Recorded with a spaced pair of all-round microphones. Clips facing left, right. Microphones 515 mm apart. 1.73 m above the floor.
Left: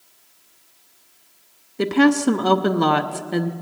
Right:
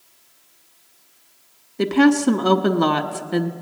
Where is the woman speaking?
Centre (ahead or behind), 0.6 m.